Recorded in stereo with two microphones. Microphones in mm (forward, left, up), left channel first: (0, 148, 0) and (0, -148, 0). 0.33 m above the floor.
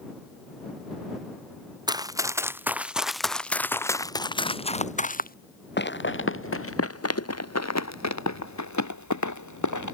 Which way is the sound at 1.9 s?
15° right (ahead or behind).